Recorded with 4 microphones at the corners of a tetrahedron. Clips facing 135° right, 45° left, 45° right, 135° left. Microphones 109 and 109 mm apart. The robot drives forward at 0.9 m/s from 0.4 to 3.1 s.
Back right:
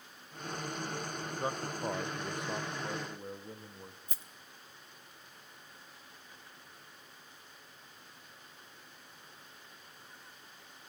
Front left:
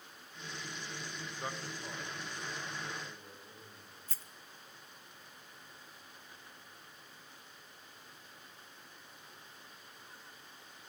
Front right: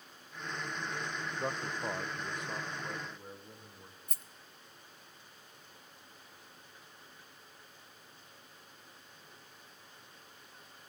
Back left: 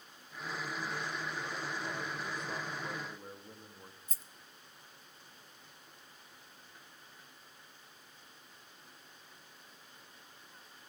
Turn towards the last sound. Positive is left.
turn(degrees=-65)